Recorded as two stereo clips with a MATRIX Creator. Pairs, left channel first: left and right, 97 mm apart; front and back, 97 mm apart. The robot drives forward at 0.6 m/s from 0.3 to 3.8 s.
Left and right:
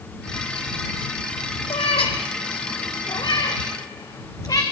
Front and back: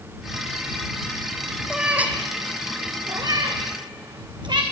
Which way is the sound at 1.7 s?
95° left.